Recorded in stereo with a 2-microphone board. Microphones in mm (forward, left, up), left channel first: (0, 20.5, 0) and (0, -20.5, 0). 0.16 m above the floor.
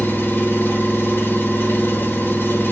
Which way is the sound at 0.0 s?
55° left (ahead or behind).